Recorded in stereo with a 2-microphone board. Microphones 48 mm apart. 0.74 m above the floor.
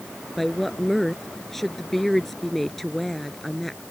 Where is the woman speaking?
5° left (ahead or behind).